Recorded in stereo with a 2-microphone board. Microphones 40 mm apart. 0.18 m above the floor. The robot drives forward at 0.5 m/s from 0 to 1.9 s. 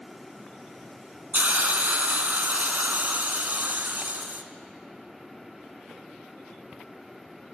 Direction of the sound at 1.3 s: 50° right (ahead or behind).